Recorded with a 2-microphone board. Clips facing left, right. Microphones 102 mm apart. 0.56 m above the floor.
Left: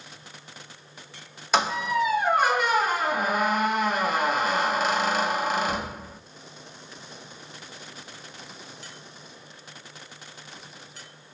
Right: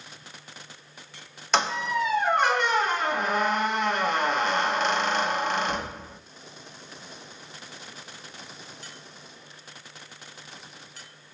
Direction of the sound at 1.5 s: 5° left (ahead or behind).